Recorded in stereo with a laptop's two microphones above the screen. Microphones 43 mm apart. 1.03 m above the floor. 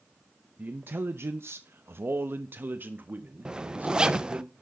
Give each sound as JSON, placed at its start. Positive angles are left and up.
{"t": 0.6, "sound": "a man speaking", "side_deg": -40, "distance_m": 0.6}
{"t": 3.5, "sound": "a zipper", "side_deg": -20, "distance_m": 0.5}